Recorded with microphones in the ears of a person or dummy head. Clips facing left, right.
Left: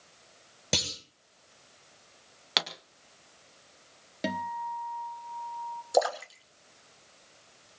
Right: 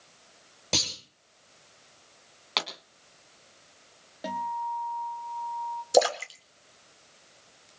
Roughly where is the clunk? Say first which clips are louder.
Even; centre.